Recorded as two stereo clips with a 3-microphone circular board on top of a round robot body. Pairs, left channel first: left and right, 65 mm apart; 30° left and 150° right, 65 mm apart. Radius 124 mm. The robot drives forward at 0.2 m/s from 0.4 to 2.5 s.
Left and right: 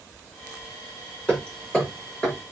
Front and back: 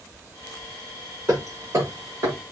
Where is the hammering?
165° left, 5.5 m.